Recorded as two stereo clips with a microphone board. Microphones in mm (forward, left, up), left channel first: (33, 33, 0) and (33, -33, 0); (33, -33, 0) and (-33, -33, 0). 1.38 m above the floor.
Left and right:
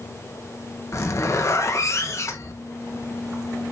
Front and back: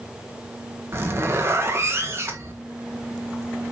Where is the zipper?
130° left, 1.4 m.